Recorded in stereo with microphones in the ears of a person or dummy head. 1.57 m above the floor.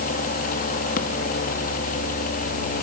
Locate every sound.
0.0 s a machine running: 50° left (ahead or behind), 2.0 m